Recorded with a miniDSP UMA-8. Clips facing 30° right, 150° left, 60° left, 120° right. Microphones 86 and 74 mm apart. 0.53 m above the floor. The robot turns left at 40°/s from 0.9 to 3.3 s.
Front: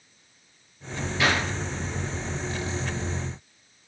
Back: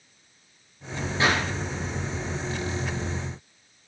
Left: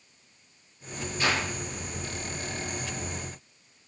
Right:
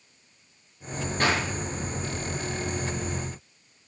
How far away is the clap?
About 7 m.